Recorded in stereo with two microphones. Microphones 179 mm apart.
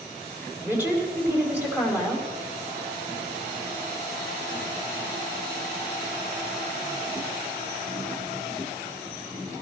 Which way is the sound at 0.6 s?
10° right (ahead or behind).